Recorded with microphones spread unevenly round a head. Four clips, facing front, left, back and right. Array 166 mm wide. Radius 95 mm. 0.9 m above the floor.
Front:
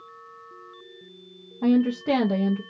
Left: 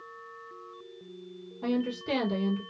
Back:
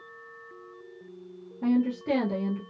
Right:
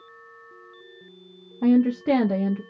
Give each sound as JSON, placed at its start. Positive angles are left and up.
{"t": 1.6, "sound": "a woman speaking", "azimuth_deg": -60, "distance_m": 0.6}